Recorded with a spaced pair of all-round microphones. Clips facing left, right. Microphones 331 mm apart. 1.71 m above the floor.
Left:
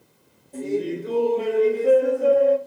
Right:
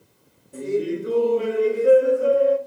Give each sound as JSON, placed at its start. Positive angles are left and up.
{"t": 0.5, "sound": "laughter", "side_deg": -15, "distance_m": 0.9}